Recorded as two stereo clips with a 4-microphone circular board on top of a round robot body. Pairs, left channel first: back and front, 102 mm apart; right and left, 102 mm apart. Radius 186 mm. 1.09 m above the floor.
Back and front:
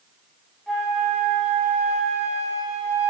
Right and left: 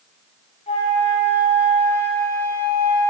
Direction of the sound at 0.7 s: 90° right.